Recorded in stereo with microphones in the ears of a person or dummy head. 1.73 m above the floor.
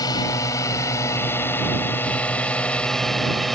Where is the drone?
20° left (ahead or behind); by 3.5 s centre (ahead or behind).